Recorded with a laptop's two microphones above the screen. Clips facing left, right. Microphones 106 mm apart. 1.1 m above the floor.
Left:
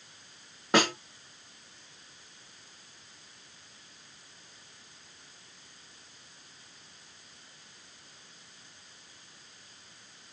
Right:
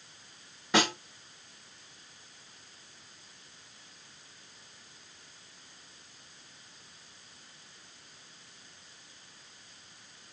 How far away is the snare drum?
About 2.5 m.